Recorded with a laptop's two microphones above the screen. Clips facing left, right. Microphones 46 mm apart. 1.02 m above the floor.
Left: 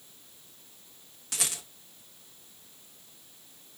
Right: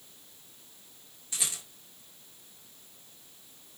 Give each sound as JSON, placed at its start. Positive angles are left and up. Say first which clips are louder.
{"t": 1.3, "sound": "a rattle", "louder": "left 2 dB", "side_deg": 75, "distance_m": 0.9}